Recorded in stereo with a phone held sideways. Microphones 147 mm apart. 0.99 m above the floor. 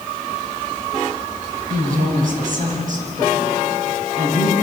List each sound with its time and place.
1.7 s a woman speaking: 70° right (ahead or behind), 6 m; by 4.5 s 60° right (ahead or behind), 8 m